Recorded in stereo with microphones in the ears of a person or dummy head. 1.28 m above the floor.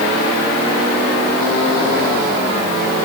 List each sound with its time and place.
Only background noise.